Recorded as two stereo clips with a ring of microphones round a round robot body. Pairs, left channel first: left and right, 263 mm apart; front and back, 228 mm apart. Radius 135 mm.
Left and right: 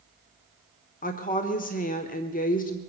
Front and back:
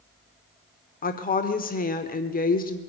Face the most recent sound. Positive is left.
turn(degrees=40)